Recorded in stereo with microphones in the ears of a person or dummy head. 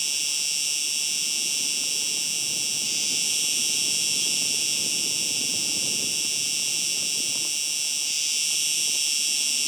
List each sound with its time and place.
0.0 s an insect: 5° right (ahead or behind)